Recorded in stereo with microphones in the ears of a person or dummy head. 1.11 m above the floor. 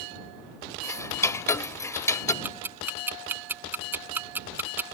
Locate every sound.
0.8 s ticking: 15° left (ahead or behind)
2.4 s ticking: 10° right (ahead or behind)